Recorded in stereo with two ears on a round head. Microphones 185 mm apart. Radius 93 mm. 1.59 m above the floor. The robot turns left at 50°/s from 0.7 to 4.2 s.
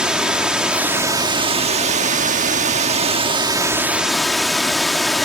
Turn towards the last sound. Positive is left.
turn(degrees=180)